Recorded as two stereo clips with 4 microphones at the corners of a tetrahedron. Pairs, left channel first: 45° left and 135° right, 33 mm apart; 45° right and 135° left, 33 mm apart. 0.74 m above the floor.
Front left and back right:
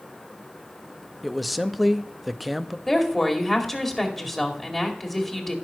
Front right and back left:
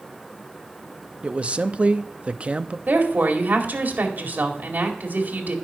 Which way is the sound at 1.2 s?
135° left.